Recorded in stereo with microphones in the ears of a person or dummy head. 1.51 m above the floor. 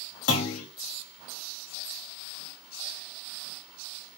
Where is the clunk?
80° left, 1.2 m.